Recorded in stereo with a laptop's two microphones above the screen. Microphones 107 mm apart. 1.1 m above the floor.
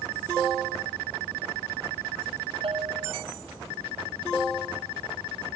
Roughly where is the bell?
Right.